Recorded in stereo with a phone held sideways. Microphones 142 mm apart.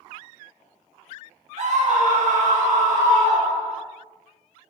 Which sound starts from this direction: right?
A scream, at 1.6 s.